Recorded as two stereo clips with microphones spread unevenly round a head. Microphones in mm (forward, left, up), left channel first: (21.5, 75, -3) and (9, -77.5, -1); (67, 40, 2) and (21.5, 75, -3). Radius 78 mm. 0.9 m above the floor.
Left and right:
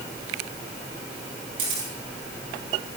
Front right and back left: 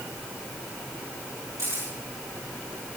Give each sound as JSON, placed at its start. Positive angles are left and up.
{"t": 1.6, "sound": "a camera shutter", "azimuth_deg": -155, "distance_m": 7.5}